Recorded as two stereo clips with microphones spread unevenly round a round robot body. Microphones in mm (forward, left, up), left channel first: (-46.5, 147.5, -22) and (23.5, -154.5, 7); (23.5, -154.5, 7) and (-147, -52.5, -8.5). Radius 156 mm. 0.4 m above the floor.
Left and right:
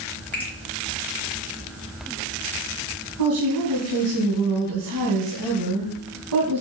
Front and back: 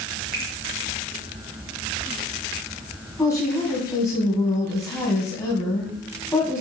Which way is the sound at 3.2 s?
105° right.